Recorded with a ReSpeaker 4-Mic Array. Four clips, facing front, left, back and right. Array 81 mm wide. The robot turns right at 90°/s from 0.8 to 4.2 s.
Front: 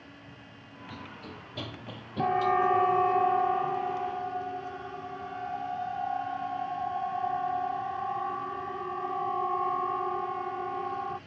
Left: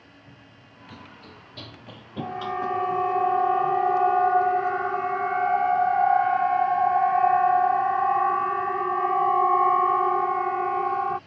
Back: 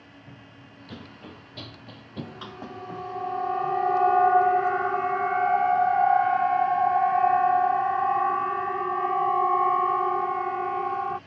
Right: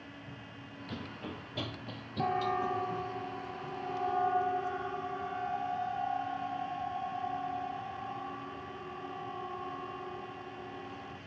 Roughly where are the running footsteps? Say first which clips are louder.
Right 3 dB, back 1 dB; behind.